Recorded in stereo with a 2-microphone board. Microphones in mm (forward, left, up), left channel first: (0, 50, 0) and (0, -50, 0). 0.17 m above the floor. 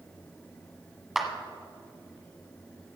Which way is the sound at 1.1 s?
5° right (ahead or behind).